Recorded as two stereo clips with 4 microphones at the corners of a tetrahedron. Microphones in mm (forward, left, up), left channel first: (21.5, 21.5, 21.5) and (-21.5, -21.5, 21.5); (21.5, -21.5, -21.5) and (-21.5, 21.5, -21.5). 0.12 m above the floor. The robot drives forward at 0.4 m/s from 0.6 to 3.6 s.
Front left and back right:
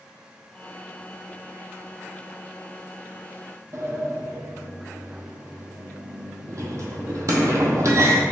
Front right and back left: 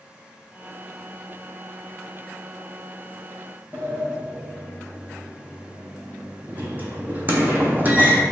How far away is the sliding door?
About 0.7 m.